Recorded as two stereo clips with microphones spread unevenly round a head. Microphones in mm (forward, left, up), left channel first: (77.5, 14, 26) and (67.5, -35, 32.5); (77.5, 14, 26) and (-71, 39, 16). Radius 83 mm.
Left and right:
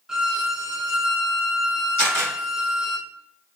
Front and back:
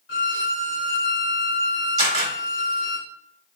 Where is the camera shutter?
115° left, 1.5 m.